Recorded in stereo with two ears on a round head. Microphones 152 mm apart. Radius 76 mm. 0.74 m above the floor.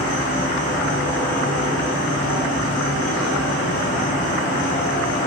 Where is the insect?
50° left (ahead or behind), 1.1 m.